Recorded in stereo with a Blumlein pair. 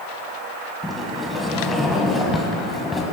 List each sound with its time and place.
0.8 s a sliding door: 5° left, 1.7 m